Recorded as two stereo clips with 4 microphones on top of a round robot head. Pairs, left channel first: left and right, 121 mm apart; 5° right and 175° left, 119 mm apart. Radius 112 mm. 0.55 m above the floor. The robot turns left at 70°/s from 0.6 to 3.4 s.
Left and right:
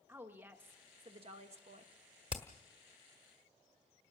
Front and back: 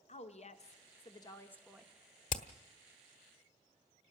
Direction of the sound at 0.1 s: 15° right.